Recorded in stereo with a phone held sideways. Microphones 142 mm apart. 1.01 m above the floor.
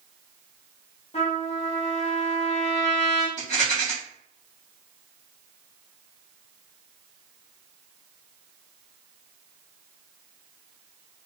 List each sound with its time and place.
1.1 s a trumpet: 45° left (ahead or behind), 0.9 m
3.4 s a rattle: 55° left (ahead or behind), 1.1 m